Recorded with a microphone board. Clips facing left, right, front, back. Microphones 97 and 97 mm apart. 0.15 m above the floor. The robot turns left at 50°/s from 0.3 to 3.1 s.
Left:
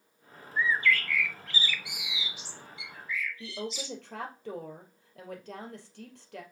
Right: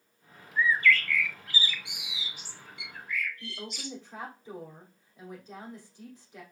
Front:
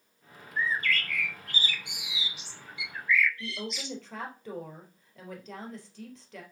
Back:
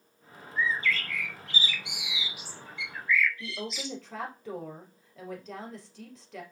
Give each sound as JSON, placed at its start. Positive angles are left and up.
{"t": 0.6, "sound": "a bird", "azimuth_deg": 35, "distance_m": 1.2}
{"t": 3.4, "sound": "a woman speaking", "azimuth_deg": 90, "distance_m": 3.0}